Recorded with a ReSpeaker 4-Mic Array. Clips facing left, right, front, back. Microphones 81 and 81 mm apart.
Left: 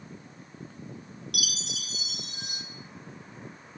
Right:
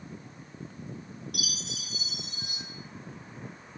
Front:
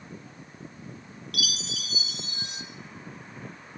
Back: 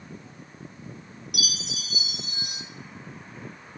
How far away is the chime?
About 1.2 m.